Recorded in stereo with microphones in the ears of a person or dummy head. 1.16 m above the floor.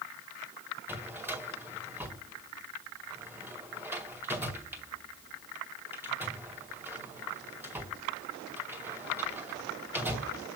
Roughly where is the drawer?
Centre.